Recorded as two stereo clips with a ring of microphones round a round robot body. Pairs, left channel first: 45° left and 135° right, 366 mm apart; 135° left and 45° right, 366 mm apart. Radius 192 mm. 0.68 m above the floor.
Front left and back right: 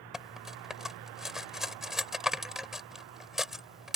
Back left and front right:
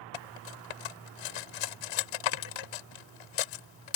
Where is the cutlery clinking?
135° left.